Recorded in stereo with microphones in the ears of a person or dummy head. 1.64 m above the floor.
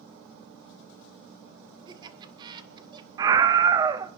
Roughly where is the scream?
Centre.